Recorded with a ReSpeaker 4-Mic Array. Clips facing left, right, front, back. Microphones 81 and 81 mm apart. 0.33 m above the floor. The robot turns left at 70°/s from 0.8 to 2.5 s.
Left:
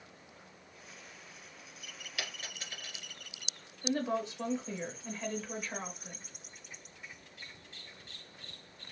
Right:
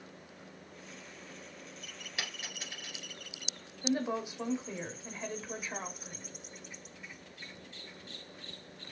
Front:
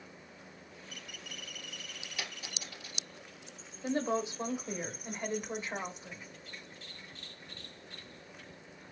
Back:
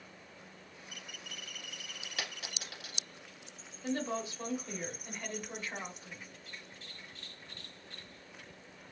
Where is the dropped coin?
155° right, 1.8 m; by 3.0 s 175° right, 1.8 m.